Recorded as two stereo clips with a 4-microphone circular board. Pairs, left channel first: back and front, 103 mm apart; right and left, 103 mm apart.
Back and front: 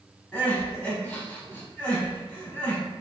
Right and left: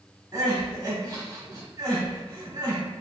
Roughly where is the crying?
Behind left.